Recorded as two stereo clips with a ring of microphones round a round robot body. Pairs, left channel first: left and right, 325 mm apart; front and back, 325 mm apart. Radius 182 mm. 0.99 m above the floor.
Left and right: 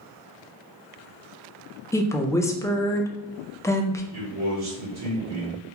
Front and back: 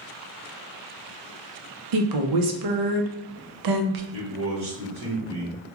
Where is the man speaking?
130° right, 1.3 m.